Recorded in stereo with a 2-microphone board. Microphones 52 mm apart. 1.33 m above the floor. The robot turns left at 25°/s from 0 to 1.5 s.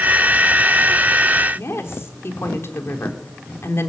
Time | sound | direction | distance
1.6 | a woman speaking | 55° left (ahead or behind) | 4 m